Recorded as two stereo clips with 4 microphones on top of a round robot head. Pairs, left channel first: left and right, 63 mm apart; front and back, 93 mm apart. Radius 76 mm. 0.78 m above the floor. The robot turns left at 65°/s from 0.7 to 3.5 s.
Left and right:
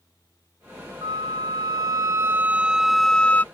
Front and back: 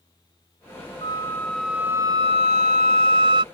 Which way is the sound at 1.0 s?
55° right.